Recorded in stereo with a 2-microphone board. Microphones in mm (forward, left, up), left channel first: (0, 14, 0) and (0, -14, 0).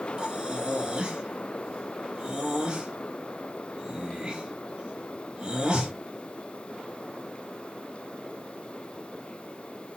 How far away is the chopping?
I don't hear chopping.